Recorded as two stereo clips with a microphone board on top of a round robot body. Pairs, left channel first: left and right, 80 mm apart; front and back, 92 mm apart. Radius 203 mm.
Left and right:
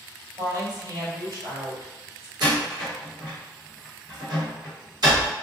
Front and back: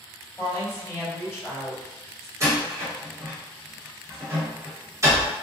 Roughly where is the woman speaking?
Ahead right.